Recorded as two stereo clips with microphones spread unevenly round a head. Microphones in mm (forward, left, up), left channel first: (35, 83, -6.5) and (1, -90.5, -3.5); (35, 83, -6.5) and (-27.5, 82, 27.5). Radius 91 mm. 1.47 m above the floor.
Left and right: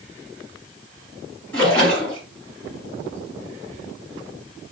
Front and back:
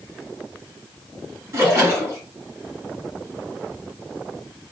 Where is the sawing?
I don't hear sawing.